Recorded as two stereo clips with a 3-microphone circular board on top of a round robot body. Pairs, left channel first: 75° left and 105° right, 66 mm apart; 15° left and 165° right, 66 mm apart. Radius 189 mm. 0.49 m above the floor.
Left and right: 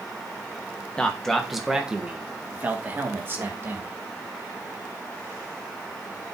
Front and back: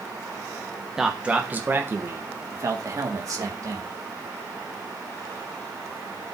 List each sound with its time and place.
1.0 s a man speaking: 125° left, 1.3 m; by 3.9 s 150° right, 2.5 m